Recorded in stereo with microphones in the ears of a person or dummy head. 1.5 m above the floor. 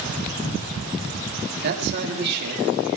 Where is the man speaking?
60° right (ahead or behind), 4 m.